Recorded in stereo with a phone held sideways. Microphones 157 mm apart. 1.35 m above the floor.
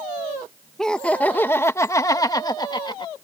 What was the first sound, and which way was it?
Laughter, 5° left (ahead or behind).